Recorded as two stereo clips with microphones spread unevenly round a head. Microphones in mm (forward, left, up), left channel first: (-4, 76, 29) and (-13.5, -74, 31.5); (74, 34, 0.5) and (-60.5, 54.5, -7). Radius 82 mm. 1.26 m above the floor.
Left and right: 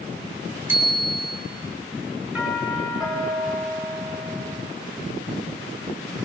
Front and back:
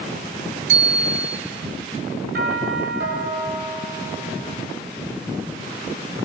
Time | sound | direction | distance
0.7 | a bicycle bell | 170° right | 4 m
2.4 | a doorbell | straight behind | 8 m